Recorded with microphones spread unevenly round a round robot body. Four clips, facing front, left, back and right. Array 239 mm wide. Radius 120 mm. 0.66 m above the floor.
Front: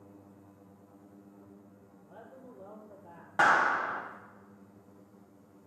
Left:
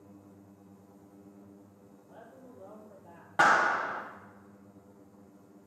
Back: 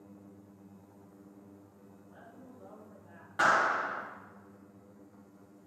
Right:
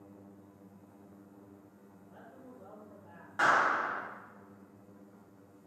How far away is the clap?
About 3 m.